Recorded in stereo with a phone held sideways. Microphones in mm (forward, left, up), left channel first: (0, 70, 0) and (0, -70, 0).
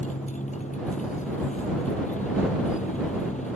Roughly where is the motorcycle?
Left.